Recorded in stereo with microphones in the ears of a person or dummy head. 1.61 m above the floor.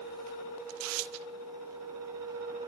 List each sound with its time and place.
0.7 s tearing paper: 80° right, 1.1 m